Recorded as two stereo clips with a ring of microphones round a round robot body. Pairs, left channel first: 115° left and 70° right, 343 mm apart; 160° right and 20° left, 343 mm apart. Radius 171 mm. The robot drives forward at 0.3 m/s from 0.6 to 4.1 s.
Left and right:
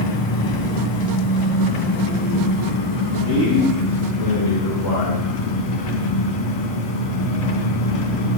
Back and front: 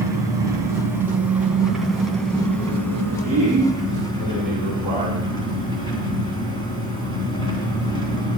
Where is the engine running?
105° left, 2.5 m; by 8.4 s 125° left, 3 m.